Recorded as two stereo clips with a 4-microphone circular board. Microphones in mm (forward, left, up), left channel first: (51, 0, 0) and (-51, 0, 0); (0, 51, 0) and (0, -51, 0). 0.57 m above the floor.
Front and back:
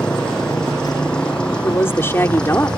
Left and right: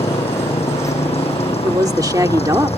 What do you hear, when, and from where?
0.0 s a motorcycle: 80° left
1.6 s a woman speaking: 55° right